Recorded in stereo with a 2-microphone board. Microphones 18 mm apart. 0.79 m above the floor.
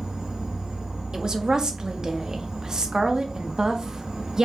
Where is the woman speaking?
45° right (ahead or behind), 0.7 m.